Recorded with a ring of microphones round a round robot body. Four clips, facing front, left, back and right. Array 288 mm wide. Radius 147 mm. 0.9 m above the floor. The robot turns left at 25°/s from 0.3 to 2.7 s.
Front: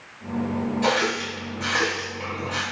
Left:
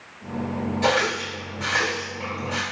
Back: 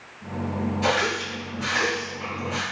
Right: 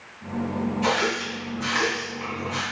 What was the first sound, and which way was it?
A running tap, 90° left.